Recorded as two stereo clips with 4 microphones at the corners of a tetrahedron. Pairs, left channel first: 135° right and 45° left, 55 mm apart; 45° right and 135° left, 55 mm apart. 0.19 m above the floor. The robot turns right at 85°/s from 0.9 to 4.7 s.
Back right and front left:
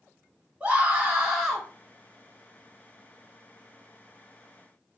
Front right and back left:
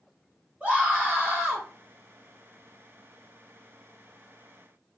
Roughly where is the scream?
Left.